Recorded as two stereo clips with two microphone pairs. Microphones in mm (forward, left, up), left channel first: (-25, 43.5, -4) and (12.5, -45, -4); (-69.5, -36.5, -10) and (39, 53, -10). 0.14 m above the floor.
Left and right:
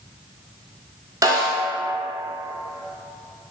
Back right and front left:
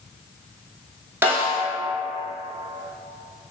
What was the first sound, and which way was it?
A snare drum, 30° right.